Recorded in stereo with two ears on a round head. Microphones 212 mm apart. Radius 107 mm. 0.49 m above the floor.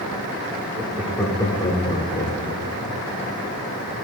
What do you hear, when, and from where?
0.8 s laughter: 15° right (ahead or behind), 0.8 m; by 3.0 s 40° left (ahead or behind), 1.7 m